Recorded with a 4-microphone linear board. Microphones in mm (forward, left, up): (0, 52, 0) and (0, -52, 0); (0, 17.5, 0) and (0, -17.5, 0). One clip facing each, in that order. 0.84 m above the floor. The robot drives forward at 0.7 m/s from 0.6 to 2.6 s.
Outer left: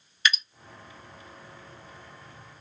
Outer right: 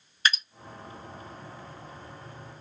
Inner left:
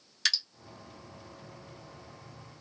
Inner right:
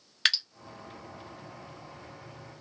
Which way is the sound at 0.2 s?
40° right (ahead or behind).